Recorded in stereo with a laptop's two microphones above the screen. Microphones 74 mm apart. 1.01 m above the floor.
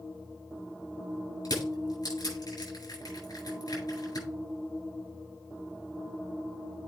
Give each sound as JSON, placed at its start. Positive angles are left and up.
{"t": 1.4, "sound": "crushing", "side_deg": 60, "distance_m": 8.0}